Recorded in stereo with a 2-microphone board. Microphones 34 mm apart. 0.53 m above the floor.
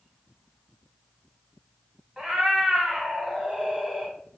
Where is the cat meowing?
25° right (ahead or behind), 0.9 m.